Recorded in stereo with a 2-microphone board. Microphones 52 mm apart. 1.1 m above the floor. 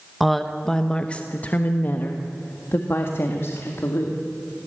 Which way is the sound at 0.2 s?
Centre (ahead or behind).